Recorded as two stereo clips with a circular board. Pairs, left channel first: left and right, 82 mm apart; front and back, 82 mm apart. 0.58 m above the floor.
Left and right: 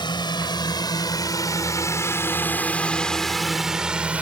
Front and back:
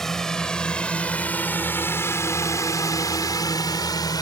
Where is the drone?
85° left; by 4.2 s 20° right.